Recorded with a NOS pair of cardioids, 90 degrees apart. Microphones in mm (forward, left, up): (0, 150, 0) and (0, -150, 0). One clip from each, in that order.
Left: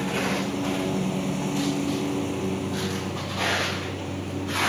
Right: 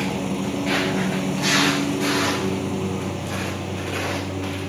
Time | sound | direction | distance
0.0 | a lawn mower | 15° right | ?